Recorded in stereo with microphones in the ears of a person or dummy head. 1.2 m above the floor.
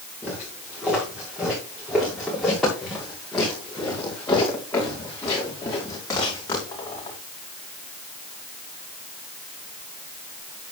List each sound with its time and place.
0.2 s footsteps: 10° right (ahead or behind), 8 m; by 7.2 s 20° left (ahead or behind), 7 m